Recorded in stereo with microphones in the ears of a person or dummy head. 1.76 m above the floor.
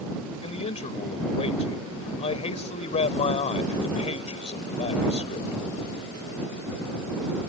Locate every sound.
0.4 s a man speaking: 30° left (ahead or behind)